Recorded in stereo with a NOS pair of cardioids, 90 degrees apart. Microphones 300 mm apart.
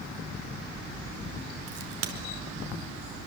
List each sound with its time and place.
1.7 s a crack: 55° right, 4.5 m